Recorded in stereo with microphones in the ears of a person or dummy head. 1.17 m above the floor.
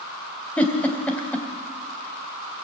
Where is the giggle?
5° left (ahead or behind), 3 m.